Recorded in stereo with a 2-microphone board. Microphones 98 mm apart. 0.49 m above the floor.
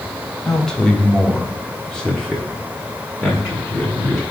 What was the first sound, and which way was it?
A man speaking, 5° left (ahead or behind).